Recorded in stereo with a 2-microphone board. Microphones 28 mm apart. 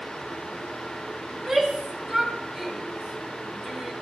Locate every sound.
1.3 s a shout: centre (ahead or behind), 4 m